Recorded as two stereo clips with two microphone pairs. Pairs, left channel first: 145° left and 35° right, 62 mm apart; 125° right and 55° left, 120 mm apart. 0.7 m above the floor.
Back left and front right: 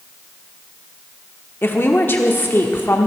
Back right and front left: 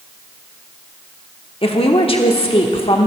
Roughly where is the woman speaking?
Behind.